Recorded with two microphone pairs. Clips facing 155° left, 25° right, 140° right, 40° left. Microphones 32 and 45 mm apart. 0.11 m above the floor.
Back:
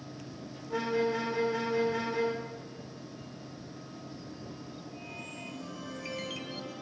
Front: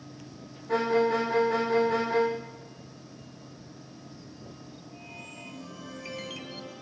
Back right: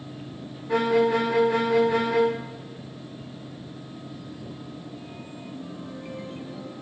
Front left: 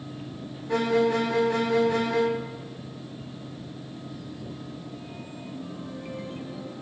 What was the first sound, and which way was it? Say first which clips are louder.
A violin: front 6 dB, back right 2 dB; 55° right.